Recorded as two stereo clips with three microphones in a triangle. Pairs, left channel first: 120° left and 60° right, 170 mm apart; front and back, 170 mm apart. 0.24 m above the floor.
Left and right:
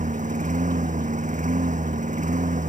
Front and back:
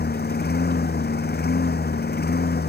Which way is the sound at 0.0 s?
20° right.